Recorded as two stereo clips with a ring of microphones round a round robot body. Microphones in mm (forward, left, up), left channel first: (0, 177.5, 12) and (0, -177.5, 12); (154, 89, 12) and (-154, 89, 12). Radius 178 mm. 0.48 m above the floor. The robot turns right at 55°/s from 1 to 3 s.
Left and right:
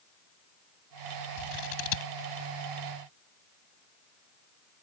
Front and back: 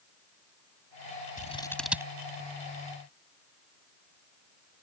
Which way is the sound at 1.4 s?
65° left.